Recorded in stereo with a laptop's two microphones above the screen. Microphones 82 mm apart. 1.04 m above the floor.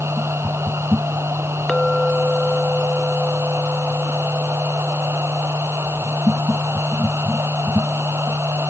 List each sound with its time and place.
0.0 s a machine running: 30° right (ahead or behind)
1.7 s a clink: 5° left (ahead or behind)